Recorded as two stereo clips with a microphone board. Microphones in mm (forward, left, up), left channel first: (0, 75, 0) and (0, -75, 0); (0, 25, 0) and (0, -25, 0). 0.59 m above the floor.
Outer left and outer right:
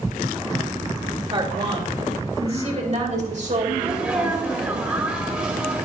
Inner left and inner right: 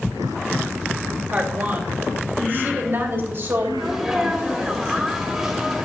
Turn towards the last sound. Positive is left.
turn(degrees=-15)  # may be behind; listen again after turning